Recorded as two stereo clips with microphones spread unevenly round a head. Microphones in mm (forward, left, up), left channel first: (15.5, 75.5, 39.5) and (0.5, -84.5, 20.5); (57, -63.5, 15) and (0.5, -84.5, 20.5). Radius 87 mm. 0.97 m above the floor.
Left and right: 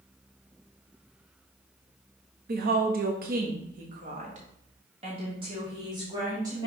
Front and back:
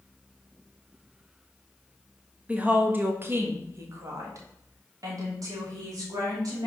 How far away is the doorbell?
I don't hear a doorbell.